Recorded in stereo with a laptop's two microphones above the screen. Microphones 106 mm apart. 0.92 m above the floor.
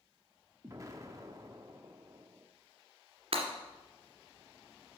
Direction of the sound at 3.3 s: 65° right (ahead or behind).